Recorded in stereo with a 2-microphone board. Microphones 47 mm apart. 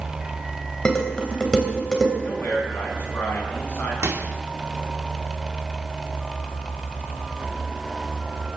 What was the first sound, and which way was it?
Dishes clattering, 15° left (ahead or behind).